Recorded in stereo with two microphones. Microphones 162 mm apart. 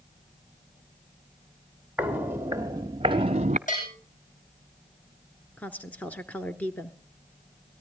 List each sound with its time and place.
2.0 s footsteps: 10° right (ahead or behind), 1.4 m; by 3.6 s 45° right (ahead or behind), 0.9 m
3.7 s a bell: 55° left (ahead or behind), 8 m
5.6 s a woman speaking: 10° left (ahead or behind), 1.3 m